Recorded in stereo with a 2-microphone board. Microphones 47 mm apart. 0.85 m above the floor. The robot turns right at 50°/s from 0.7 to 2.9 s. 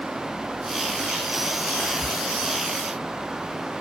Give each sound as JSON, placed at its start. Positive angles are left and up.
{"t": 1.8, "sound": "whispering", "side_deg": -10, "distance_m": 0.7}